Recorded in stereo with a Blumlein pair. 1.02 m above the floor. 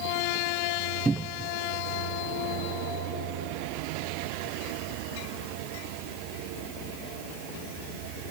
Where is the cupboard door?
10° right.